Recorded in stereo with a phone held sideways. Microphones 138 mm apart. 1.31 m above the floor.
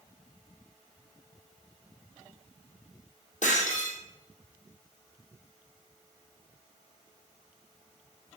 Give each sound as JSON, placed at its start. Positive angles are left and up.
{"t": 3.4, "sound": "breaking glass", "side_deg": 65, "distance_m": 4.5}